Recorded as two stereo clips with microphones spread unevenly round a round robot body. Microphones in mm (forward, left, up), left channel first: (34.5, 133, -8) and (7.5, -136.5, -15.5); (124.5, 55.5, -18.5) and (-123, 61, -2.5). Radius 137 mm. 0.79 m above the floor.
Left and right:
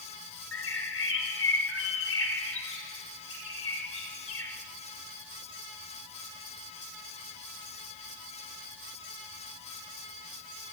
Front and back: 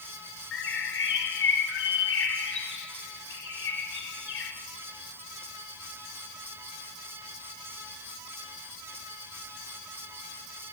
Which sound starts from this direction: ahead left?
A bird, at 0.5 s.